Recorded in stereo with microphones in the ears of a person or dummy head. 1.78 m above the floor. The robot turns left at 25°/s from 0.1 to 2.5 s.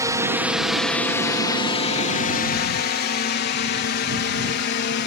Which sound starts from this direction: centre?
A drone, at 0.0 s.